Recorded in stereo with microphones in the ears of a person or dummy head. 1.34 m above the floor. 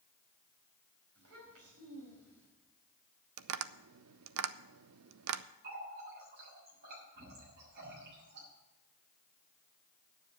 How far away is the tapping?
About 0.5 m.